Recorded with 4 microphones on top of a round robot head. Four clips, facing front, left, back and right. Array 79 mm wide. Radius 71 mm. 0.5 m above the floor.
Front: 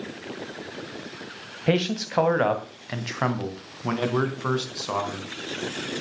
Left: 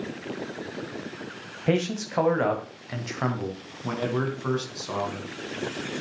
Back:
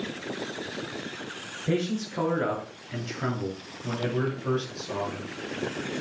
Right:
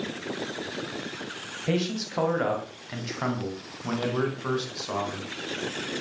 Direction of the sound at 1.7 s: 30° left.